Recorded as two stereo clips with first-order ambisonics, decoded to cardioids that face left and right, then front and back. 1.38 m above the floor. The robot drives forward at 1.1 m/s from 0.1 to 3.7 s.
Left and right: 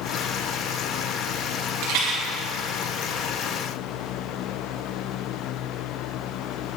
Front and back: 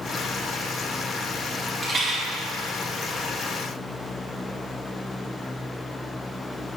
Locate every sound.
1.8 s a rattle: 100° right, 1.9 m; by 2.2 s 115° right, 2 m